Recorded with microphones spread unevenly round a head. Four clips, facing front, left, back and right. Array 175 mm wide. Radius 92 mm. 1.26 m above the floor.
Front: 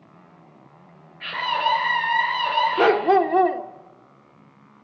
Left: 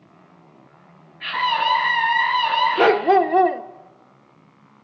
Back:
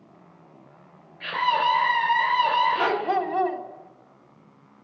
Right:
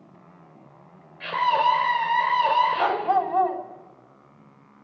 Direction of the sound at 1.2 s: 115° right.